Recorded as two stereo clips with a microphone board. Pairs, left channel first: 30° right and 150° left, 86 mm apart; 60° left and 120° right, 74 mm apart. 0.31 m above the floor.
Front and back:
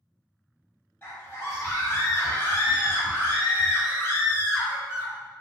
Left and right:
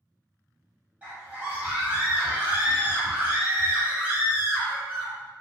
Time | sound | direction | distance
1.0 | a scream | 70° right | 1.7 m